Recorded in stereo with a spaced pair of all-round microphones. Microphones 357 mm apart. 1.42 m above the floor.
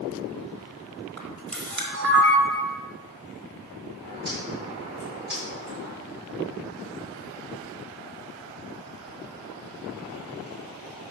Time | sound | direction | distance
1.2 | a camera shutter | 50° right (ahead or behind) | 3 m
4.0 | a bird | 85° right | 4.5 m